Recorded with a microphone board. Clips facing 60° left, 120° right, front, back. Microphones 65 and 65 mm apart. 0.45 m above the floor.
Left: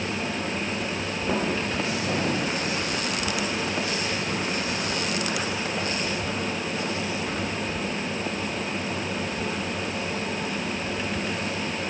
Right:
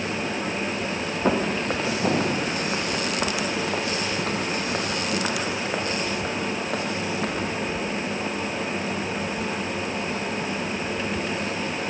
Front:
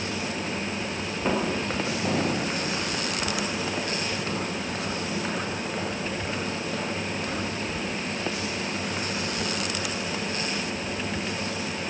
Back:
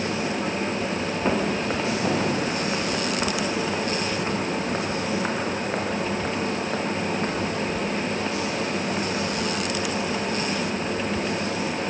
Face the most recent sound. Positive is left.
turn(degrees=-130)